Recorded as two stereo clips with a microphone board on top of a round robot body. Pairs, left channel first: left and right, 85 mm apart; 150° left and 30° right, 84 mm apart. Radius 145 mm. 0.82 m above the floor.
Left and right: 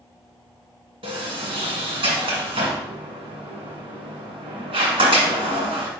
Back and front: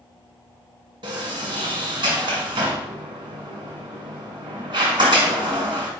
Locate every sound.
1.0 s a sliding door: 65° right, 1.8 m